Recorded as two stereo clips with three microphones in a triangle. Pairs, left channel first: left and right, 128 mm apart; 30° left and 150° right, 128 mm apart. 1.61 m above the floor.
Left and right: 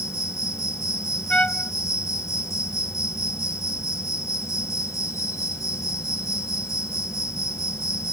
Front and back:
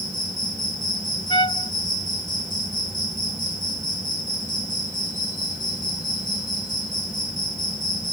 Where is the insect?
25° left.